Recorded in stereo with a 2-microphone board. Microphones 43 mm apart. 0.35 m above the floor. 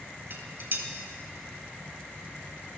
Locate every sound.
0.3 s dishes clattering: 50° right (ahead or behind), 1.2 m